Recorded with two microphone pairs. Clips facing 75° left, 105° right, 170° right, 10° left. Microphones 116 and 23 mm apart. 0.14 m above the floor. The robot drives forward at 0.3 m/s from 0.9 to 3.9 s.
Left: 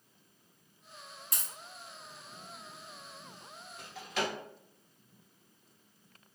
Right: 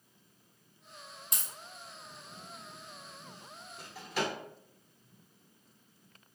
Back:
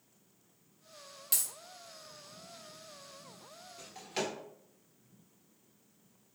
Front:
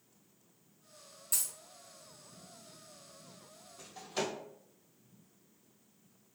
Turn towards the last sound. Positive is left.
turn(degrees=175)